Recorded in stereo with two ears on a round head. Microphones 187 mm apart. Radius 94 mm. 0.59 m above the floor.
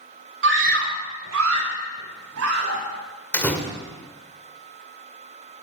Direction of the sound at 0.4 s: 60° right (ahead or behind).